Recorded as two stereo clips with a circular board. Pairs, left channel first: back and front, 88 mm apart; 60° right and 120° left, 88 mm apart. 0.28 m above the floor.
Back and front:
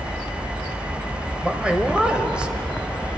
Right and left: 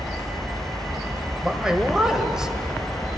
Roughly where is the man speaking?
Ahead left.